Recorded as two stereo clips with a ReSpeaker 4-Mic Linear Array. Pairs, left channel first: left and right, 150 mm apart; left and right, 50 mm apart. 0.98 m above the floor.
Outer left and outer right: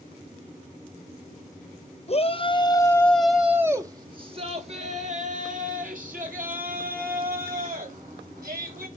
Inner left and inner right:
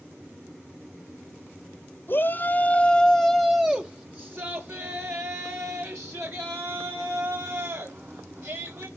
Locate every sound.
2.1 s a shout: 45° left (ahead or behind), 1.1 m; by 8.9 s 75° right (ahead or behind), 3.5 m